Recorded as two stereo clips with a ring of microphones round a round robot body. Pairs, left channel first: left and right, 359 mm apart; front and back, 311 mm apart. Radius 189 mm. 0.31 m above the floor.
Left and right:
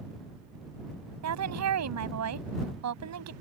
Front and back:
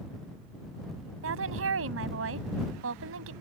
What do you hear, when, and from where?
1.2 s a woman speaking: 130° right